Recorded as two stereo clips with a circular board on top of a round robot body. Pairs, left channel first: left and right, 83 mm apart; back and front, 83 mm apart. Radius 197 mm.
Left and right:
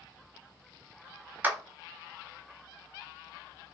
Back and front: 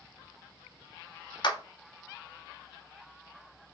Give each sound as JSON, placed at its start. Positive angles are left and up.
{"t": 1.4, "sound": "a clap", "azimuth_deg": -155, "distance_m": 0.7}